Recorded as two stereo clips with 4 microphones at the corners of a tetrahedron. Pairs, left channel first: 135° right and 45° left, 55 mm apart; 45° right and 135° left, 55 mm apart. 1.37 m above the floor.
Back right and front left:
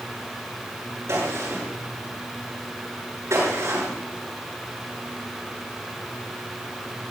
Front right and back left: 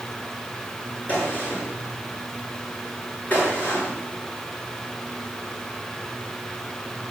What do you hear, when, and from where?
1.1 s a gunshot: 15° left, 7 m